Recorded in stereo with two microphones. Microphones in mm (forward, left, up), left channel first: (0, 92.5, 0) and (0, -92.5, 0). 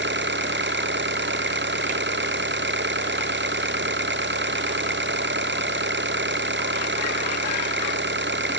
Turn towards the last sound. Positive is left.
turn(degrees=-75)  # may be behind; listen again after turning